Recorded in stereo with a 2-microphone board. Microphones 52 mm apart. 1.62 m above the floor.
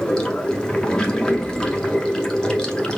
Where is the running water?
15° left (ahead or behind), 0.8 m.